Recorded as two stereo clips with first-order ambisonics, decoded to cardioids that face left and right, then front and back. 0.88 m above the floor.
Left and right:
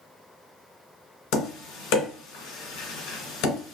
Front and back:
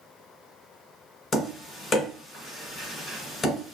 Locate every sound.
1.3 s tapping: 70° left, 1.5 m